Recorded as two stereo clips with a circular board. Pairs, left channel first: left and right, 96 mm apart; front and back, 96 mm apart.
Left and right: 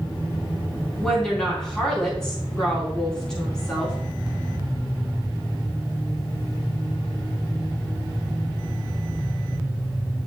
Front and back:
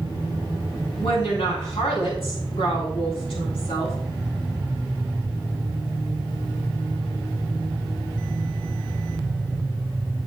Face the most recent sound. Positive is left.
turn(degrees=5)